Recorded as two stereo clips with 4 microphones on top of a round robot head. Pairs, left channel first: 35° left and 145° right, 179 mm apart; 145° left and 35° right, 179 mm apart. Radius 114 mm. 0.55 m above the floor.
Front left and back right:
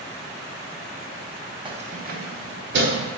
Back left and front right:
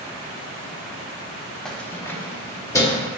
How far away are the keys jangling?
About 0.5 m.